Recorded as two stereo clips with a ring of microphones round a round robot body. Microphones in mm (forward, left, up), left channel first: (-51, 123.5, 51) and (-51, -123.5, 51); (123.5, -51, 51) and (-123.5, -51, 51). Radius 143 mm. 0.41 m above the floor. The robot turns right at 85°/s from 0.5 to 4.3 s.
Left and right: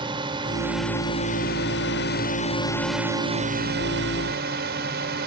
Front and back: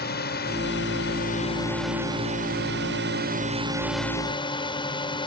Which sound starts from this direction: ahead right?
A drone, at 0.0 s.